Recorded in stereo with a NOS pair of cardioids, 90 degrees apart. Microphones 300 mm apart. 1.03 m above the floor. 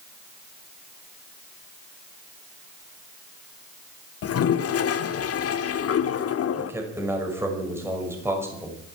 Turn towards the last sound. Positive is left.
turn(degrees=-10)